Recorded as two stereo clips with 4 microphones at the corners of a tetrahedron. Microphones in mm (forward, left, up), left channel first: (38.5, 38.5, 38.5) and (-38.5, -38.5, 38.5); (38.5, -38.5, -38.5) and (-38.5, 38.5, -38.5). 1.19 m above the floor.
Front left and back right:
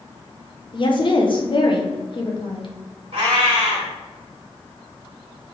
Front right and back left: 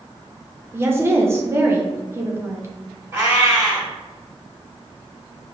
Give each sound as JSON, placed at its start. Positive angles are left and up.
{"t": 0.7, "sound": "a woman speaking", "azimuth_deg": 75, "distance_m": 1.0}
{"t": 3.1, "sound": "a cat meowing", "azimuth_deg": -160, "distance_m": 1.8}